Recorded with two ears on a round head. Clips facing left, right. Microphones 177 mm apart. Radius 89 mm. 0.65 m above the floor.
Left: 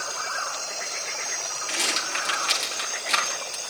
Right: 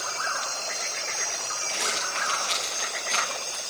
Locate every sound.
1.7 s a rattle: 70° left (ahead or behind), 9.5 m